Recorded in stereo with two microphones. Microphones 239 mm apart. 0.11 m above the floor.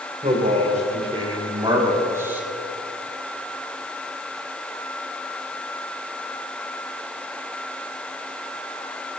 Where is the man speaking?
30° right (ahead or behind), 6 m; by 2.5 s 5° right (ahead or behind), 3.5 m.